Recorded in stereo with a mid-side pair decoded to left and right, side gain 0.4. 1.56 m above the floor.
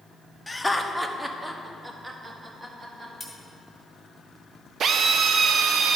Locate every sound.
0.5 s laughter: 15° left, 0.8 m; by 3.1 s 35° right, 2 m
3.2 s cutlery clinking: 20° left, 2.0 m
4.8 s a drill: 65° right, 0.6 m